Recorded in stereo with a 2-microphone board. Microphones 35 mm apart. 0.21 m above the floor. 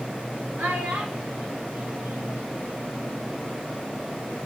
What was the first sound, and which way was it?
A child speaking, 70° right (ahead or behind).